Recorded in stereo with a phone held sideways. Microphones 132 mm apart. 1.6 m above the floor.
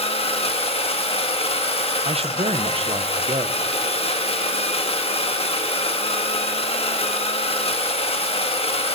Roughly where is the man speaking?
Right.